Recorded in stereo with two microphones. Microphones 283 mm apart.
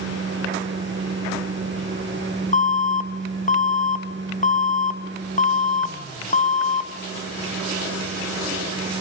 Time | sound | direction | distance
2.5 | an alarm | 25° left (ahead or behind) | 0.8 m